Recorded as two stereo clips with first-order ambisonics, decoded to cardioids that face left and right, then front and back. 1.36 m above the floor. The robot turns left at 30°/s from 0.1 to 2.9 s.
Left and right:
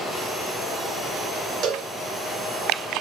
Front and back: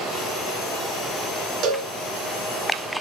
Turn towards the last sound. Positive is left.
turn(degrees=-175)